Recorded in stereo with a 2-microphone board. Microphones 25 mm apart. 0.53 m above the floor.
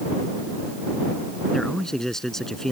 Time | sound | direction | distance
1.5 | a man speaking | 20° left (ahead or behind) | ?